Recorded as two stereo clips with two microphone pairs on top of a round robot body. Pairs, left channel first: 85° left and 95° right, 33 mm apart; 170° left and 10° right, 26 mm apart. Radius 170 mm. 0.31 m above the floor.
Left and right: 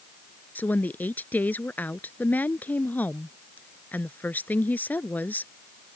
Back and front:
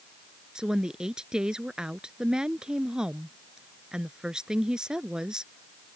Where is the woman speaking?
50° left.